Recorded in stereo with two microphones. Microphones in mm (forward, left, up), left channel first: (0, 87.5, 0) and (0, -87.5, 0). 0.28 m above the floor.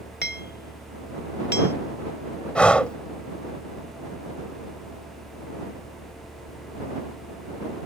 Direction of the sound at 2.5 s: 5° left (ahead or behind).